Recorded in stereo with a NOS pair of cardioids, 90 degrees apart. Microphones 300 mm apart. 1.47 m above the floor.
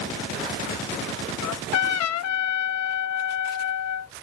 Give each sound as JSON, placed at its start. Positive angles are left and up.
{"t": 1.4, "sound": "a trumpet", "azimuth_deg": 65}